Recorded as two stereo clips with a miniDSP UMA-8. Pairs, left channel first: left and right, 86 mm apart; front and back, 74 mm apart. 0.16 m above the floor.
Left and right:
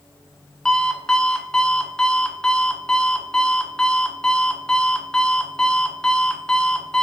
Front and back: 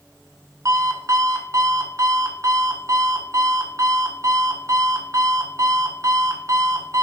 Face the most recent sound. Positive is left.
turn(degrees=170)